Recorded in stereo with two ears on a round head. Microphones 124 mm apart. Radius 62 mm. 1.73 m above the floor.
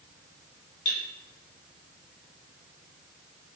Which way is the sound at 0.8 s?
50° left (ahead or behind).